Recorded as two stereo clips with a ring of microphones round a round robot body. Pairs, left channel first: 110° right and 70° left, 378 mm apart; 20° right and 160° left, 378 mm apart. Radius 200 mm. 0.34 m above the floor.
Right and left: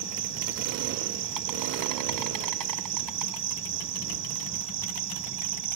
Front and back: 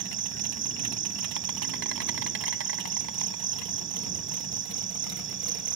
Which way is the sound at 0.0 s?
100° left.